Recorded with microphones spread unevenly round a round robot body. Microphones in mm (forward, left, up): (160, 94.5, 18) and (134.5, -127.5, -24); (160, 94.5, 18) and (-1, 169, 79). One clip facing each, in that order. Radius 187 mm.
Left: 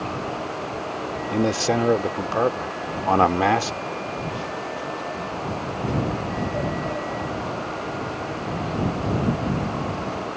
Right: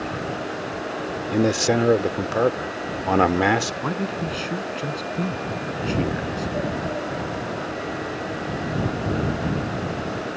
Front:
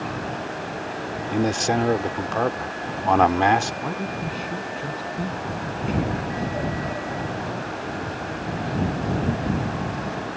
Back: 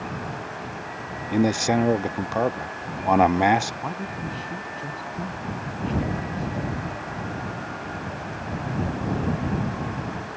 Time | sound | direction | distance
1.3 | a man speaking | 95° right | ?
3.8 | a man speaking | 110° right | ?